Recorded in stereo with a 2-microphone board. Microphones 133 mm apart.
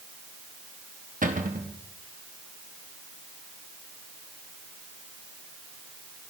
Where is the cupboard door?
85° right, 1.6 m.